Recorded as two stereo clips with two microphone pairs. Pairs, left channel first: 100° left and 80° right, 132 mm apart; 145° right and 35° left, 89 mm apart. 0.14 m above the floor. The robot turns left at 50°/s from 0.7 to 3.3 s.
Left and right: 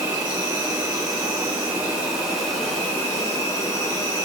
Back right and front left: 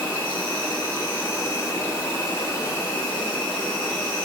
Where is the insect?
85° right, 1.5 m; by 4.2 s 145° left, 1.5 m.